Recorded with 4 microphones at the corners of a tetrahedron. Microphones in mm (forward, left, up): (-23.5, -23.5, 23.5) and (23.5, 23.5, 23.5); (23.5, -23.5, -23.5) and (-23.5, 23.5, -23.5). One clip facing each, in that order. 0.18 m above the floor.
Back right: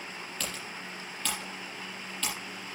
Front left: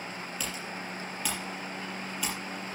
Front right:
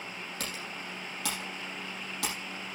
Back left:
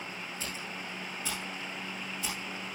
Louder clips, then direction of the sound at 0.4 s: Front left 1 dB, even; 35° right.